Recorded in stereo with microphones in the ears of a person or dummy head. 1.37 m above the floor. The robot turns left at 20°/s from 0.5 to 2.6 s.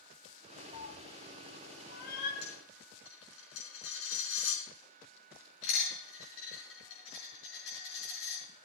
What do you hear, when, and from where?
0.7 s a cat meowing: 65° left (ahead or behind), 1.3 m; by 2.3 s 55° left (ahead or behind), 1.3 m
2.4 s a dropped coin: 75° left (ahead or behind), 4 m